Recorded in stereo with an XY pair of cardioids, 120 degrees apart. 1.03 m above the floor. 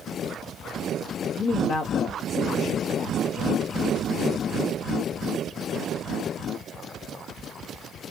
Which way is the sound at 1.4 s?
55° left.